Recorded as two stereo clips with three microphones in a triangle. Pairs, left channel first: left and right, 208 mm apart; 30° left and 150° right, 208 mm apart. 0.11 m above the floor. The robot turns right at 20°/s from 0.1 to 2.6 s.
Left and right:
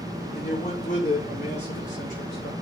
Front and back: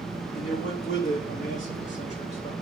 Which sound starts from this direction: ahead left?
A man speaking, at 0.3 s.